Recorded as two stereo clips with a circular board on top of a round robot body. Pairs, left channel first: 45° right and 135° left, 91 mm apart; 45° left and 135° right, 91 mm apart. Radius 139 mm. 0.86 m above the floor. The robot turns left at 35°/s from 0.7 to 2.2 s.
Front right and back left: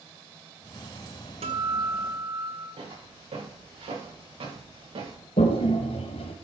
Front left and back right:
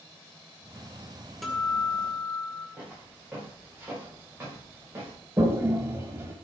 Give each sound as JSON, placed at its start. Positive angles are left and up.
{"t": 1.4, "sound": "a guitar", "azimuth_deg": 135, "distance_m": 2.0}
{"t": 2.8, "sound": "footsteps", "azimuth_deg": 150, "distance_m": 8.5}
{"t": 5.4, "sound": "a toilet flushing", "azimuth_deg": -70, "distance_m": 0.9}